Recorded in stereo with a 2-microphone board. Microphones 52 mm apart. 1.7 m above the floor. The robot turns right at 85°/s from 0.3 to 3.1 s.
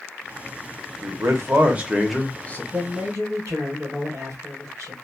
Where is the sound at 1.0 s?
95° right, 0.9 m; by 2.6 s 40° left, 0.9 m.